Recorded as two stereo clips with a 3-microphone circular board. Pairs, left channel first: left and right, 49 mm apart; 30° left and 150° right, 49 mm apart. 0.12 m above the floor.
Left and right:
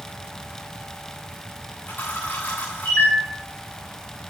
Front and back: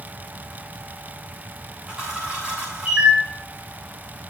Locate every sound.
1.9 s a camera shutter: 140° left, 8 m